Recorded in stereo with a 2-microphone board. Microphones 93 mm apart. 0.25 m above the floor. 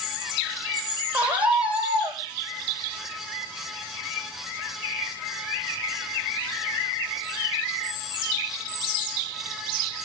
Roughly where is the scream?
Centre.